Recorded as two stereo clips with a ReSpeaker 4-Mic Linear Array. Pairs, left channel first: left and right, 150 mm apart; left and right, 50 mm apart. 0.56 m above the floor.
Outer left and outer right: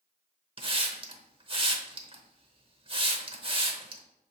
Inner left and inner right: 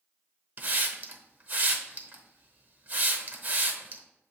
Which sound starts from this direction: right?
A hiss, at 0.6 s.